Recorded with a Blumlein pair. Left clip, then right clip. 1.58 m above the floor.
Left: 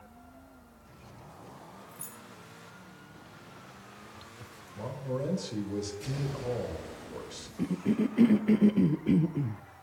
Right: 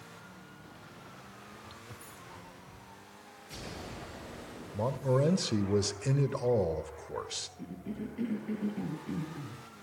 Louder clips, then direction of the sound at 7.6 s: Left 11 dB; 60° left.